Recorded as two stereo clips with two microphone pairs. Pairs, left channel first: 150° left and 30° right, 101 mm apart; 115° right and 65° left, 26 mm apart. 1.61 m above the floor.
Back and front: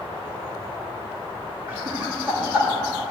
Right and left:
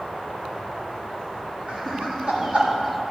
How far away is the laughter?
About 3 m.